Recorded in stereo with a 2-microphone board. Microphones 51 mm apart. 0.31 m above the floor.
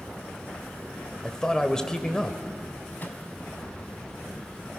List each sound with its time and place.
1.2 s a man speaking: 15° left (ahead or behind), 1.4 m
3.0 s a microwave: 35° left (ahead or behind), 1.9 m